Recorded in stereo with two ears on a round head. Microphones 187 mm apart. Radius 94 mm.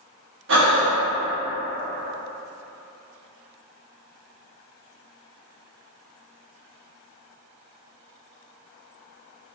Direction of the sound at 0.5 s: 60° right (ahead or behind).